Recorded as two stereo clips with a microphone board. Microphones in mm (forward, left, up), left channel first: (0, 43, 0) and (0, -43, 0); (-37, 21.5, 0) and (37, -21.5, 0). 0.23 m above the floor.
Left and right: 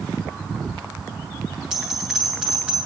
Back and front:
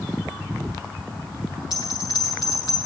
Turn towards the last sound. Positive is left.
turn(degrees=180)